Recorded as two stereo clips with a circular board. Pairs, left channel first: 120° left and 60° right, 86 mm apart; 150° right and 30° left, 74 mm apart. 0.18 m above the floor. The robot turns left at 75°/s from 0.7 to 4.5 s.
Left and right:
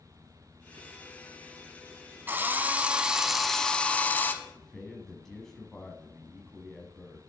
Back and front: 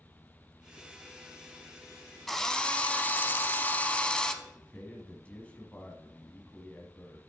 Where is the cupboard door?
I don't hear a cupboard door.